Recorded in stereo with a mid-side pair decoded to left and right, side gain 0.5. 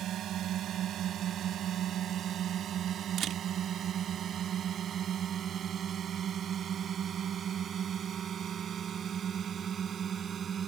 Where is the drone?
60° right; by 10.7 s 45° right.